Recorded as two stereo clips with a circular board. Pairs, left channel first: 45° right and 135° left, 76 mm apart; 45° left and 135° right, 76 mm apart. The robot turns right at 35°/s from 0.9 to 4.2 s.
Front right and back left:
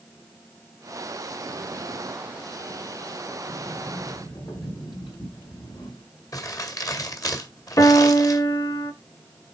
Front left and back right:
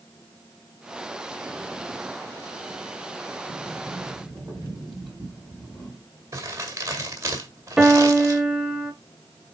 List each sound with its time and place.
3.5 s a sliding door: 75° right, 4 m; by 6.0 s 50° right, 4 m
6.3 s crumpling: 90° right, 1.8 m
7.8 s a piano: 55° right, 0.8 m